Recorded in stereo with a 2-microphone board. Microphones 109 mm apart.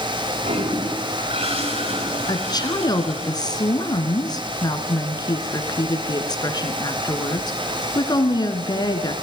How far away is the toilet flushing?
About 8 m.